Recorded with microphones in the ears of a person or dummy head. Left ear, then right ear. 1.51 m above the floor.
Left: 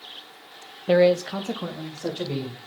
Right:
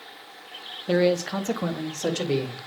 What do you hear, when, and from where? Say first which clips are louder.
0.9 s a man speaking: left 4 dB; 15° left (ahead or behind), 0.8 m; by 2.6 s 55° right (ahead or behind), 1.9 m